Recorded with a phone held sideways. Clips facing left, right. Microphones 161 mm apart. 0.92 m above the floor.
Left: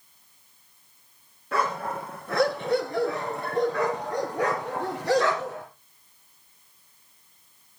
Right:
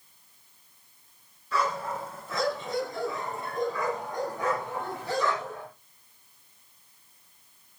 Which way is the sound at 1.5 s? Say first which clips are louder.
Left 2 dB; 55° left (ahead or behind).